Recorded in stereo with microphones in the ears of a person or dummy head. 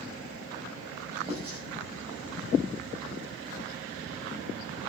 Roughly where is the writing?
Right.